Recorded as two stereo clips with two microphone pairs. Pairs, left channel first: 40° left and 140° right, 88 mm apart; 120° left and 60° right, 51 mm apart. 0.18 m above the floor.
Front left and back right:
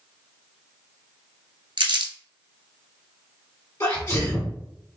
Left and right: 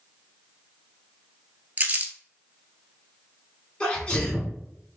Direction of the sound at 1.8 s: 120° right.